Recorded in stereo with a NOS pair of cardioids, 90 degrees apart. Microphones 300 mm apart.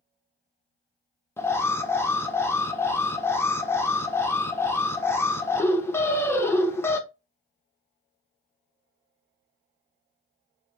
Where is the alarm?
10° left, 0.7 m.